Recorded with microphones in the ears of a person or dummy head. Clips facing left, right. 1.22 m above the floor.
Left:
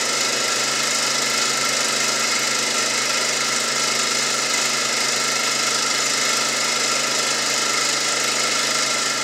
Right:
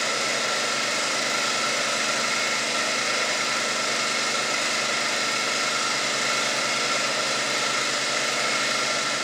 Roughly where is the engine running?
Left.